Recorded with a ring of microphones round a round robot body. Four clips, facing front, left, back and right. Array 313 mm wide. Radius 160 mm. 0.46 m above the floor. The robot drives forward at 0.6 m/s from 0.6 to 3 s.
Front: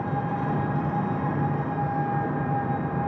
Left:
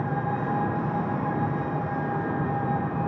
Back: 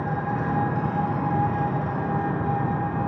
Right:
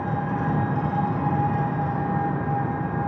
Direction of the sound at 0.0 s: 100° right.